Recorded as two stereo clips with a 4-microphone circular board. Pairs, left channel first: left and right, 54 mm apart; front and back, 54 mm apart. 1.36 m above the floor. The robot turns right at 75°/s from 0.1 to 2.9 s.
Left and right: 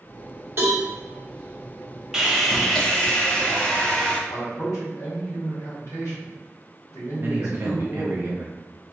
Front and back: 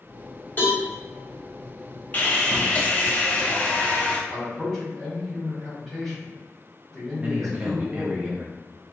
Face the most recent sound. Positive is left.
turn(degrees=-120)